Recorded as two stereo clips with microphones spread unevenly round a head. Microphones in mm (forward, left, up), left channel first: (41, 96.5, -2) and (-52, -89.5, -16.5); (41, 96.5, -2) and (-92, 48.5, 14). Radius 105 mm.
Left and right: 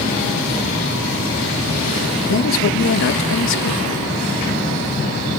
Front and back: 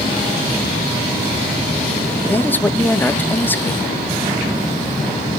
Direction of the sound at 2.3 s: 95° left.